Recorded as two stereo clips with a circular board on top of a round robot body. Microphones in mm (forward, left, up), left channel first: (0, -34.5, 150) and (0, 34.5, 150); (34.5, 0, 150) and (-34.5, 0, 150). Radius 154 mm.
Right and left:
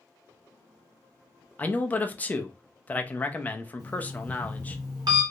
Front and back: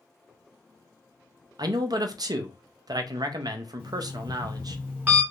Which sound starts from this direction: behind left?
An alarm clock, at 3.8 s.